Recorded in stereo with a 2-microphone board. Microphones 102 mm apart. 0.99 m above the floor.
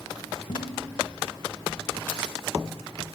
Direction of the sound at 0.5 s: 45° left (ahead or behind).